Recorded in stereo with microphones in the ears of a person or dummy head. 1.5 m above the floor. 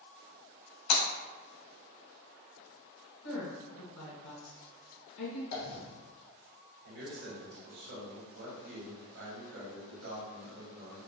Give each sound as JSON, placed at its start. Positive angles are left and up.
{"t": 0.9, "sound": "breaking glass", "side_deg": 65, "distance_m": 1.9}
{"t": 3.2, "sound": "a woman speaking", "side_deg": 85, "distance_m": 2.0}
{"t": 5.5, "sound": "a dropped coin", "side_deg": 60, "distance_m": 1.6}
{"t": 6.8, "sound": "a man speaking", "side_deg": -75, "distance_m": 1.5}